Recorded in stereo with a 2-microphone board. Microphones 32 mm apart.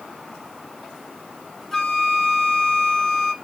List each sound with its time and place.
1.7 s a flute: 5° left (ahead or behind), 1.1 m